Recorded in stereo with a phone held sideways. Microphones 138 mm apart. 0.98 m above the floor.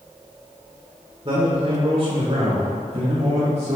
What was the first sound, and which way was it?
A man speaking, 40° right (ahead or behind).